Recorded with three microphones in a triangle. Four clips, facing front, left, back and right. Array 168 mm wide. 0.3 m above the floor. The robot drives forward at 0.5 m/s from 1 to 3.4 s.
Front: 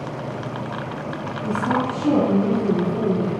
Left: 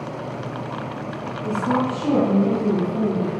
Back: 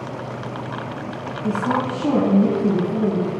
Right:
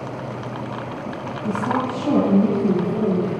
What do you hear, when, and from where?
1.4 s a woman speaking: 165° right, 2.5 m; by 3.3 s 170° right, 3 m